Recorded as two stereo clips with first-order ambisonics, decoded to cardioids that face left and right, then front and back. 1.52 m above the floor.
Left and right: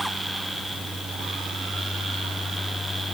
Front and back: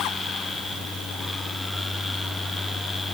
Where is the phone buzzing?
No phone buzzing in this recording.